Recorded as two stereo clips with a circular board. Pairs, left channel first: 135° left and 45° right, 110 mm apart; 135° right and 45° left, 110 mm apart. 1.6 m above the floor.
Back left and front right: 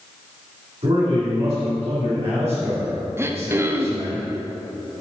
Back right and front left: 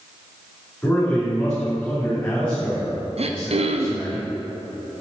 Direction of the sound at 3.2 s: 20° left.